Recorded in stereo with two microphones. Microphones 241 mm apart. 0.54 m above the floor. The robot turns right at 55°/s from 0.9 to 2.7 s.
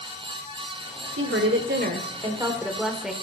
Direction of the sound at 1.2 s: 85° right.